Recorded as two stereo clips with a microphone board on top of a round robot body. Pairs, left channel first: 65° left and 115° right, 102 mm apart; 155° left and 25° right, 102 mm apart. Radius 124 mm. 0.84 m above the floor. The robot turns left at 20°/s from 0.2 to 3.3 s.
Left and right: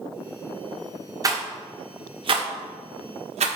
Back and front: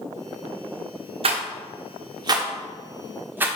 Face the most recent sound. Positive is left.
turn(degrees=-95)